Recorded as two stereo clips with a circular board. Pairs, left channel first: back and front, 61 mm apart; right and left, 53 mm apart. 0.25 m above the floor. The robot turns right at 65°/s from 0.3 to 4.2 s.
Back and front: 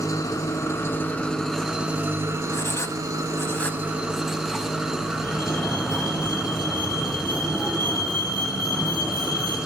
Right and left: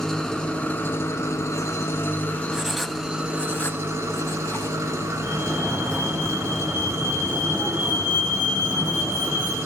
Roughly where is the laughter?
I don't hear laughter.